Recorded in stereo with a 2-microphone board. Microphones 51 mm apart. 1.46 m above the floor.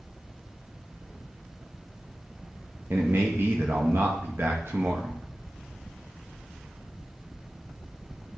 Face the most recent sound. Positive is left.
turn(degrees=-50)  # may be behind; listen again after turning